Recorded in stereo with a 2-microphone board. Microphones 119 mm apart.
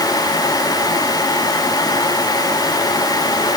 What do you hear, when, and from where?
Only background noise.